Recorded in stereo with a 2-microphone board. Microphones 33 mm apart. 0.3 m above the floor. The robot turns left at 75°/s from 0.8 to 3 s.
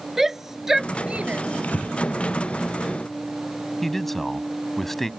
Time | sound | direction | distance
0.2 | a shout | 10° right (ahead or behind) | ?
1.6 | breathing | 60° left (ahead or behind) | ?
3.8 | a man speaking | 10° left (ahead or behind) | ?